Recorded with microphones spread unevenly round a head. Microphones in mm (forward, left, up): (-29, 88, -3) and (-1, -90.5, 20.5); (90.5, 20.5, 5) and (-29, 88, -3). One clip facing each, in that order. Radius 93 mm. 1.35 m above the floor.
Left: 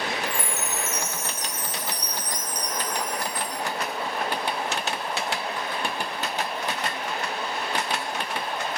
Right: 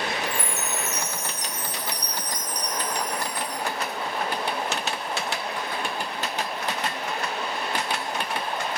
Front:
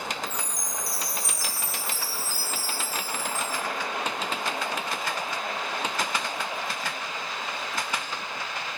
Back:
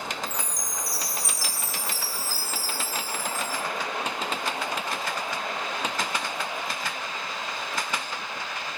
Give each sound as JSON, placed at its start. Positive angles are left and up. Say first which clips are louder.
{"t": 0.3, "sound": "a chime", "louder": "right 1 dB, even", "azimuth_deg": 145, "distance_m": 1.2}